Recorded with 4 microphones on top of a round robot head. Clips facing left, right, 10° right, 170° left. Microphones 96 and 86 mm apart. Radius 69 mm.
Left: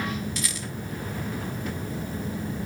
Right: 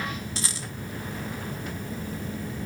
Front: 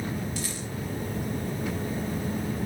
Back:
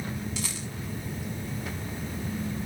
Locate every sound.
0.4 s a rattle: 150° right, 1.1 m